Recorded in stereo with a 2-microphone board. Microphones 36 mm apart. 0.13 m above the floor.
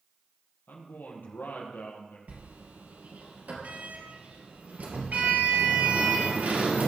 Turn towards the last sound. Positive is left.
turn(degrees=-50)  # may be behind; listen again after turning